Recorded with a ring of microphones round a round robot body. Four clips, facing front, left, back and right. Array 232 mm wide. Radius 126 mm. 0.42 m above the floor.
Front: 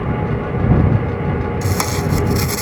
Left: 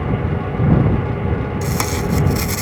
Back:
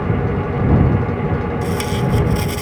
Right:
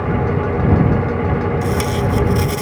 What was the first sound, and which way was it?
Tape being pulled, 30° left.